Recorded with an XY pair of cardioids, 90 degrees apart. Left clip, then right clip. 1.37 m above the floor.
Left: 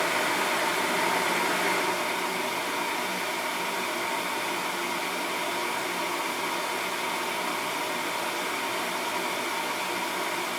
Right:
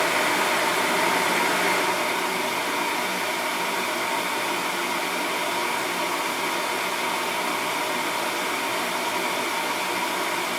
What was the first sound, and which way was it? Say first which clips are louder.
A fan: right 4 dB; 35° right.